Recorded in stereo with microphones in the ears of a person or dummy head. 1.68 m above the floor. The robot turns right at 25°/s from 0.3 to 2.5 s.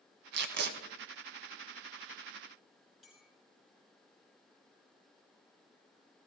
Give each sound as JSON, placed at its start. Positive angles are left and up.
{"t": 0.3, "sound": "tape being pulled", "side_deg": -60, "distance_m": 1.2}
{"t": 3.0, "sound": "a clink", "side_deg": 0, "distance_m": 5.0}